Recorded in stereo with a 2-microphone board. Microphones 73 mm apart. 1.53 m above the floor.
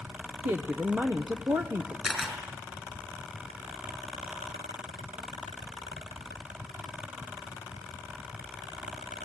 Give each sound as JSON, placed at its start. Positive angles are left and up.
{"t": 0.5, "sound": "a woman speaking", "side_deg": -35, "distance_m": 0.9}
{"t": 2.0, "sound": "a camera shutter", "side_deg": -10, "distance_m": 5.5}